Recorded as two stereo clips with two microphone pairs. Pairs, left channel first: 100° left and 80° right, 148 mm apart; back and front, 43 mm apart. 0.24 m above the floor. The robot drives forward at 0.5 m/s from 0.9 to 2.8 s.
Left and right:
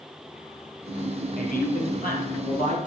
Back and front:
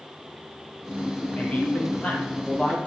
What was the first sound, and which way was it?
A man speaking, 120° left.